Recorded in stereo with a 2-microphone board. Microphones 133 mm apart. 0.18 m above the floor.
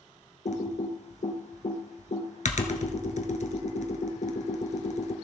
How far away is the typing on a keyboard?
About 1.1 m.